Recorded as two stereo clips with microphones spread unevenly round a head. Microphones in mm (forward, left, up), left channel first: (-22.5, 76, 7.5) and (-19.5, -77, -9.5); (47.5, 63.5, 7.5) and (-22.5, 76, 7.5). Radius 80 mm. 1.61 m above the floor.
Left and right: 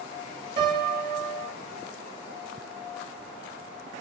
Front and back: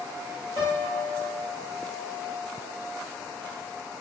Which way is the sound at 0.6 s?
105° right.